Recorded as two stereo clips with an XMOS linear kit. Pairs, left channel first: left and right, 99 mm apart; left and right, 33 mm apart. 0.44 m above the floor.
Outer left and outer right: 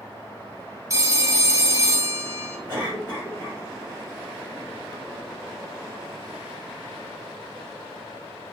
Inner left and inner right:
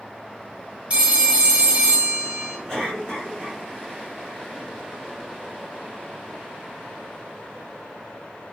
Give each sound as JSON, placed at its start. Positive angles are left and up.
{"t": 0.9, "sound": "a phone ringing", "side_deg": -30, "distance_m": 0.7}
{"t": 2.7, "sound": "a cough", "side_deg": 20, "distance_m": 1.4}